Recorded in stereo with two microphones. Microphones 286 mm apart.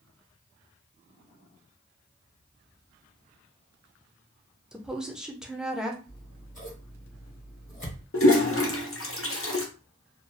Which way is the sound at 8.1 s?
50° left (ahead or behind).